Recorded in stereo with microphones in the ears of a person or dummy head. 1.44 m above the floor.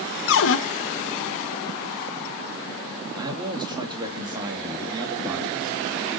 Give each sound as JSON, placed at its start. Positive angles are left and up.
{"t": 0.3, "sound": "a cupboard door", "side_deg": 75, "distance_m": 1.4}
{"t": 3.2, "sound": "a man speaking", "side_deg": -25, "distance_m": 3.0}